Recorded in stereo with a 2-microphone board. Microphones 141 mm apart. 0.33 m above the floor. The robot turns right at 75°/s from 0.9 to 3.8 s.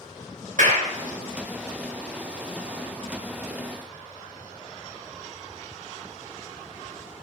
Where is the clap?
60° right (ahead or behind), 3 m.